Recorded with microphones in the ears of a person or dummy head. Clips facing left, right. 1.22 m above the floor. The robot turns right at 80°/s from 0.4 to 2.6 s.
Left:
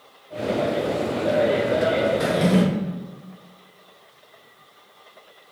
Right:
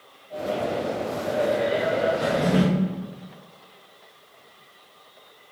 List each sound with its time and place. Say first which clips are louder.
2.2 s a drawer: left 2 dB; 100° left, 0.7 m; by 2.6 s 135° left, 0.7 m